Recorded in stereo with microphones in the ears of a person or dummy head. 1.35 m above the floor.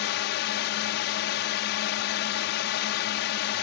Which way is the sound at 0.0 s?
50° left (ahead or behind).